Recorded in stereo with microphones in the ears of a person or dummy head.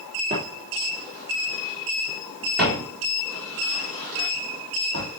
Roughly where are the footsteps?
Right.